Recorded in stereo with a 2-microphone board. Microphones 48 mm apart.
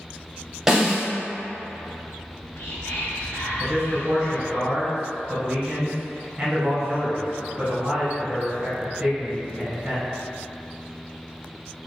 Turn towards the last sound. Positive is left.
turn(degrees=-20)  # may be behind; listen again after turning